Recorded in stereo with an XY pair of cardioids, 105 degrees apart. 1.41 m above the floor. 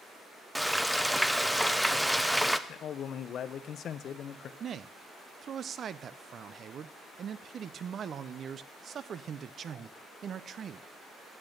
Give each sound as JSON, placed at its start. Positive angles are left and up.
{"t": 0.6, "sound": "frying", "azimuth_deg": 0, "distance_m": 0.6}
{"t": 2.7, "sound": "a man speaking", "azimuth_deg": 60, "distance_m": 0.7}
{"t": 4.6, "sound": "a man speaking", "azimuth_deg": -50, "distance_m": 0.5}